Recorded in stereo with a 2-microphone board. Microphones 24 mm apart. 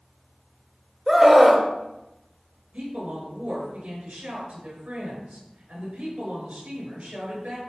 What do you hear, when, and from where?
1.1 s a scream: 10° right (ahead or behind), 1.0 m
2.7 s a woman speaking: 70° right (ahead or behind), 5 m